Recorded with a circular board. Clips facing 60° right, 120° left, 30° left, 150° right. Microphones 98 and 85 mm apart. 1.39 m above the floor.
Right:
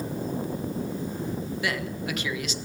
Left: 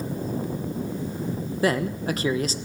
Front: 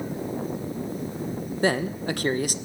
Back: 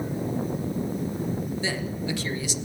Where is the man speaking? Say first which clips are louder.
Left 10 dB, front 5 dB; 70° left, 0.9 m.